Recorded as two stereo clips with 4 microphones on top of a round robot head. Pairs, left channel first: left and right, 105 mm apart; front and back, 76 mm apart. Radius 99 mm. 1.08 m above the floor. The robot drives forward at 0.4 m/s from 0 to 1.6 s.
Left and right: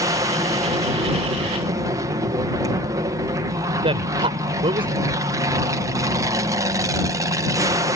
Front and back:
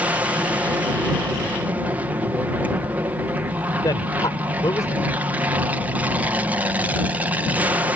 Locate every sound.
0.0 s an aircraft: 120° right; by 8.0 s 125° right
3.8 s a man speaking: 55° right